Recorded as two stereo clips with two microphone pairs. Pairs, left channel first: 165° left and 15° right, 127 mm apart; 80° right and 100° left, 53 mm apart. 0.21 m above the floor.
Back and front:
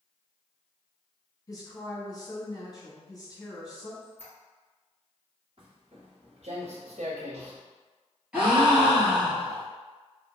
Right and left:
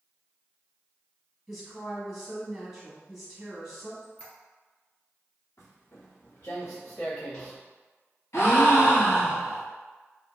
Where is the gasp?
95° right, 1.1 m.